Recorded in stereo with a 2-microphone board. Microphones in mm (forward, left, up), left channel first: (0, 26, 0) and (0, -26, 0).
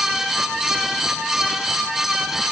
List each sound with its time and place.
Only background noise.